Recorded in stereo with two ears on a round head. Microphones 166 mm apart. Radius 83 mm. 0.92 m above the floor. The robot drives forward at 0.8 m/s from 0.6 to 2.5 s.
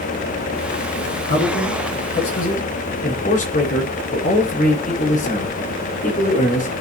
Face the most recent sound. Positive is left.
turn(degrees=45)  # may be behind; listen again after turning